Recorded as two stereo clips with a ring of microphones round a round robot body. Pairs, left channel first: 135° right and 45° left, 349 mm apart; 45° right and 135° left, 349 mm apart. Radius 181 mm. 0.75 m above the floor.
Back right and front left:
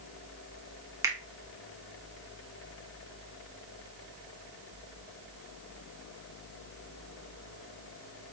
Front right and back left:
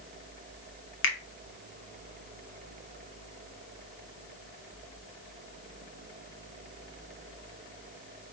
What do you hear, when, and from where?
1.0 s a finger snap: 30° right, 0.7 m